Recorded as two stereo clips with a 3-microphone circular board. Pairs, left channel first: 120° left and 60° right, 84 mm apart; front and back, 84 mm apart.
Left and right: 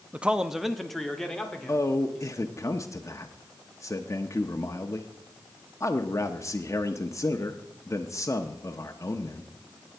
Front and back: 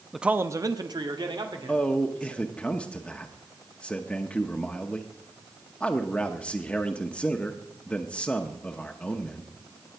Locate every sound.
0.1 s a man speaking: 85° right, 0.5 m; by 2.4 s 160° right, 2.5 m
1.7 s a man speaking: 75° left, 0.8 m